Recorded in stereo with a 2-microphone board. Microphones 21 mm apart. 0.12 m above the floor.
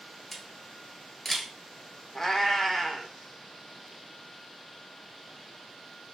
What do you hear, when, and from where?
0.3 s a camera shutter: 10° left (ahead or behind), 1.2 m
2.1 s a cat meowing: 25° left (ahead or behind), 0.8 m